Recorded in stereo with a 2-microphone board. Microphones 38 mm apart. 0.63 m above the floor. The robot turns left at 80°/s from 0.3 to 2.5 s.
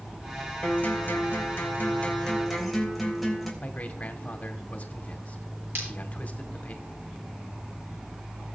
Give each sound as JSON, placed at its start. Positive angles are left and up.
{"t": 0.6, "sound": "a guitar", "azimuth_deg": 150, "distance_m": 3.5}
{"t": 3.6, "sound": "a man speaking", "side_deg": 40, "distance_m": 1.9}
{"t": 5.8, "sound": "breaking glass", "side_deg": -60, "distance_m": 8.5}